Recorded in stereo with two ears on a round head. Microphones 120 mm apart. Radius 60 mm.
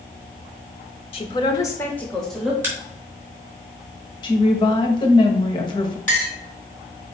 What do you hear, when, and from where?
1.1 s a man speaking: 40° left (ahead or behind), 1.3 m; by 2.5 s centre (ahead or behind), 1.9 m
2.6 s a crack: 15° right (ahead or behind), 3.5 m
4.2 s a woman speaking: 35° left (ahead or behind), 1.7 m
6.1 s a clink: 10° left (ahead or behind), 3 m